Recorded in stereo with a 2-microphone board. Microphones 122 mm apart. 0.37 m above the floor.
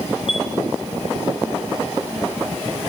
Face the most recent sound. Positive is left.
turn(degrees=50)  # may be behind; listen again after turning